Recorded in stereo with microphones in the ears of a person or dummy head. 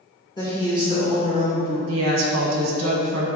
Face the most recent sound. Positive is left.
turn(degrees=-90)